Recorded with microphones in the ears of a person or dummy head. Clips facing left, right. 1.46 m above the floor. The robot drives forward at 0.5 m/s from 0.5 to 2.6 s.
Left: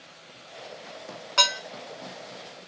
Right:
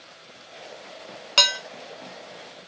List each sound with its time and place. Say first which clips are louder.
1.4 s dishes clattering: even; 35° right (ahead or behind), 0.6 m